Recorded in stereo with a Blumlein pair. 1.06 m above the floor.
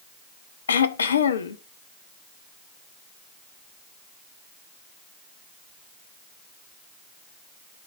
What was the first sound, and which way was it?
Throat clearing, 70° left.